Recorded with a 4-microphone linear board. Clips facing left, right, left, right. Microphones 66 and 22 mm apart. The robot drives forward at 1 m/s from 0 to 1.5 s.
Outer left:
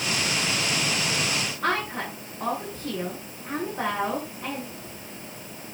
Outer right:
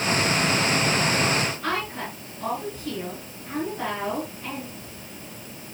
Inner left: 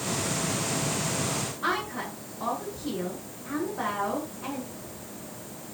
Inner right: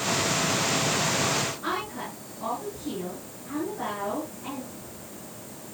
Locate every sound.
1.6 s a woman speaking: 40° left (ahead or behind), 9 m